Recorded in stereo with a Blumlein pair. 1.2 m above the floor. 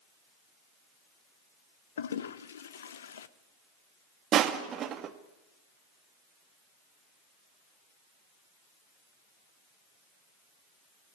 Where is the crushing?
30° right, 1.5 m.